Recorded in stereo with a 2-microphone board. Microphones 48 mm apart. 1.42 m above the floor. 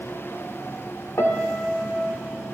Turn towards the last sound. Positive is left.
turn(degrees=55)  # may be behind; listen again after turning